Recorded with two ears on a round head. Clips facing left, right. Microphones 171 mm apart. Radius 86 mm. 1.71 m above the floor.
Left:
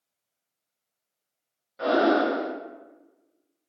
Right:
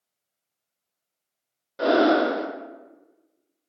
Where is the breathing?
55° right (ahead or behind), 0.5 m.